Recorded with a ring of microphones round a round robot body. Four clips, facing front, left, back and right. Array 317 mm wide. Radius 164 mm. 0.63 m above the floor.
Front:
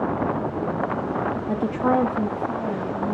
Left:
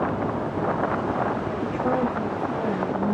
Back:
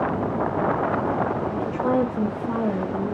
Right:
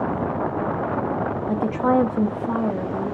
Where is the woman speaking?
30° right, 0.7 m; by 3.1 s 140° right, 1.1 m.